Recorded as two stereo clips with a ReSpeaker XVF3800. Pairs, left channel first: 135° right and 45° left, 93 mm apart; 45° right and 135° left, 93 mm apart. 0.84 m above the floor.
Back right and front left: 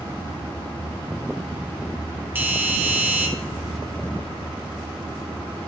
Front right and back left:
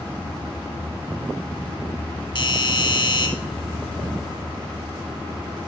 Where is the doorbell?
20° right, 1.4 m.